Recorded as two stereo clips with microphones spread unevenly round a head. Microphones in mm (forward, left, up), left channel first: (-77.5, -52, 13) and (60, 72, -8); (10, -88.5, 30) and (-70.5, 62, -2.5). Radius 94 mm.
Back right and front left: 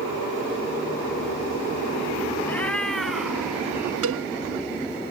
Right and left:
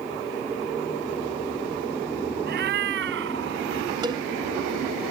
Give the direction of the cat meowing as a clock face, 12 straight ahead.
7 o'clock.